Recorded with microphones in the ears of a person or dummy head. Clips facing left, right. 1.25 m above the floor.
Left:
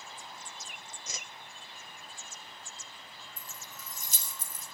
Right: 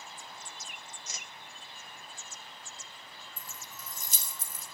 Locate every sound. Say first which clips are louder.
1.1 s a whoosh: left 2 dB; 65° left (ahead or behind), 0.8 m
3.4 s keys jangling: right 1 dB; 80° right, 4 m